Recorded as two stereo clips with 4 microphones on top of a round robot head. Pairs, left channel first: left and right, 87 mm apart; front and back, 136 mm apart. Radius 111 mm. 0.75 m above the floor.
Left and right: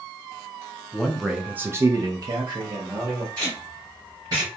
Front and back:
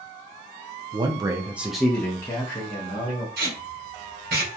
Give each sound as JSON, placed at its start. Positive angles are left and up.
{"t": 0.9, "sound": "a man speaking", "azimuth_deg": 165, "distance_m": 0.6}
{"t": 3.4, "sound": "tape being pulled", "azimuth_deg": -160, "distance_m": 0.8}